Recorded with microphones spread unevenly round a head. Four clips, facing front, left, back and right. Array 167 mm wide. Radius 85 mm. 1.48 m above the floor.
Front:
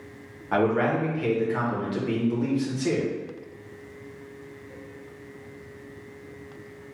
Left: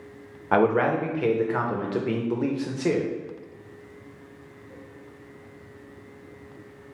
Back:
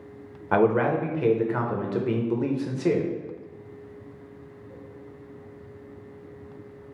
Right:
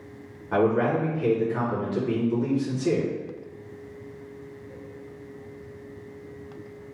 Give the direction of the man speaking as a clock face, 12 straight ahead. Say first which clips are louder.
Left 1 dB, back 2 dB; 8 o'clock.